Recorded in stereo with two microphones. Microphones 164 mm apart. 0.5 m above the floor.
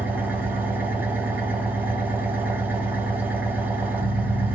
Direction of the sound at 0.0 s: 10° right (ahead or behind).